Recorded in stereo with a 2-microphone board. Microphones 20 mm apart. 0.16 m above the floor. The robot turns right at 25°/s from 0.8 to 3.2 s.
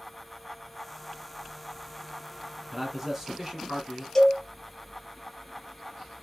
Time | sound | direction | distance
2.7 | a man speaking | 5° left (ahead or behind) | 2.0 m
4.2 | a cowbell | 25° left (ahead or behind) | 3.5 m